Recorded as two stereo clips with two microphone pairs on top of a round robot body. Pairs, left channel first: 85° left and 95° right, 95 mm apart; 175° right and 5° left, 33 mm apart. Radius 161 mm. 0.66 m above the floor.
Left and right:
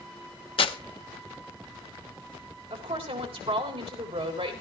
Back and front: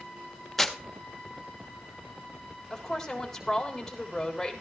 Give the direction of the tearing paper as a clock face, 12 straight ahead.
9 o'clock.